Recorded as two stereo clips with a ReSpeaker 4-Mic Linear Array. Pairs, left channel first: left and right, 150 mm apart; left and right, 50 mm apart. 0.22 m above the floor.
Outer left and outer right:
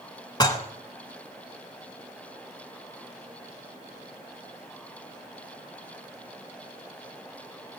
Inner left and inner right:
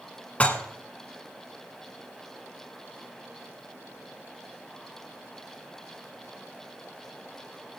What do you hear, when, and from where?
0.4 s dishes clattering: 25° left (ahead or behind), 1.4 m